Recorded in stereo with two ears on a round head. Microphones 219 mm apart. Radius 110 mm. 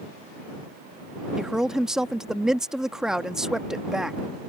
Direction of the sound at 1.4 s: Centre (ahead or behind).